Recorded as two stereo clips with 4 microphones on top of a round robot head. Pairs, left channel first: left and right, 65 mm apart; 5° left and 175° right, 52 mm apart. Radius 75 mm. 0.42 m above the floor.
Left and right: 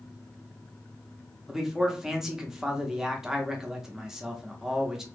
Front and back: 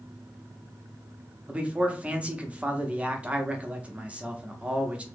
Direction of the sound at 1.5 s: 160° right.